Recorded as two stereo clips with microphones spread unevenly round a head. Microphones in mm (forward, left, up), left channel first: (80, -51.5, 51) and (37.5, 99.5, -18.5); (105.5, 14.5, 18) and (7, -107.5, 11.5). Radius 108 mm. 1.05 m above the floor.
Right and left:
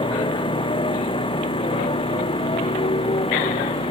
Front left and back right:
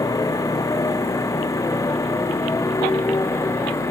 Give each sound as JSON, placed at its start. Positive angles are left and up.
{"t": 0.0, "sound": "a motorcycle", "azimuth_deg": -15}